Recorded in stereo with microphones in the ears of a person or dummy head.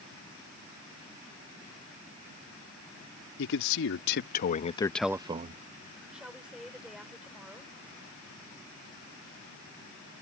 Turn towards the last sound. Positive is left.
turn(degrees=-5)  # may be behind; listen again after turning